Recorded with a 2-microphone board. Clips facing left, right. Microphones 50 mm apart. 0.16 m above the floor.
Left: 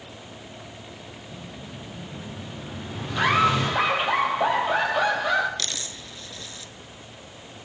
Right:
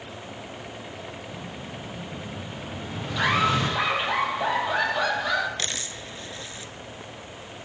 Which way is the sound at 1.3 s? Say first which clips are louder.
Right 3 dB; 5° left (ahead or behind).